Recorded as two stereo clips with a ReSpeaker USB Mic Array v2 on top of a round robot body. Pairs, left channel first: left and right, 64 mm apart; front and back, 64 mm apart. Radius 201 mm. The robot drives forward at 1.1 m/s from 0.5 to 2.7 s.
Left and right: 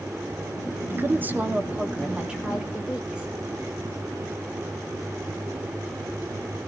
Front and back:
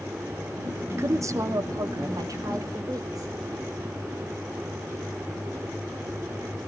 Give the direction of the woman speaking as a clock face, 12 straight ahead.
5 o'clock.